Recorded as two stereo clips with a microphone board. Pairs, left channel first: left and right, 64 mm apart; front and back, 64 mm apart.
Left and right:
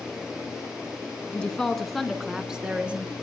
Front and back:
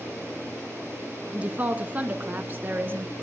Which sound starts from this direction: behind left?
A woman speaking, at 1.3 s.